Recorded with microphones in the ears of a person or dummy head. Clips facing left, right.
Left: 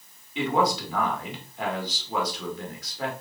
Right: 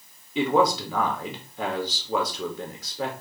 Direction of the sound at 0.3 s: 90° right.